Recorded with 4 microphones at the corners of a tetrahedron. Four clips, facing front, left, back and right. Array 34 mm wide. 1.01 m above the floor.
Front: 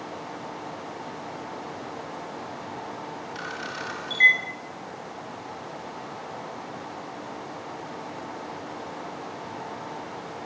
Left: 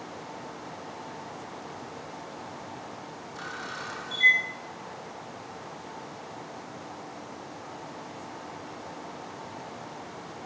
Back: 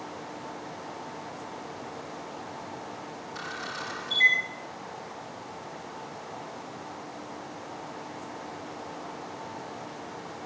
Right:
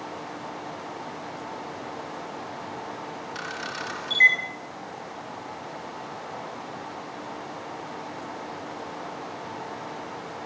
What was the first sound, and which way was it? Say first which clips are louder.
A camera shutter: right 3 dB, front 1 dB; 70° right.